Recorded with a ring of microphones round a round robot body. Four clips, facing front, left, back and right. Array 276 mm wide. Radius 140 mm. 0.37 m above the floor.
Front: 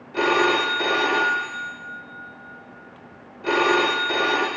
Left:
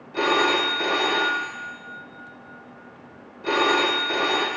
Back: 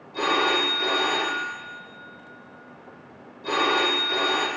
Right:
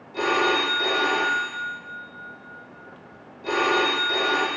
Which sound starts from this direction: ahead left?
A phone ringing, at 0.1 s.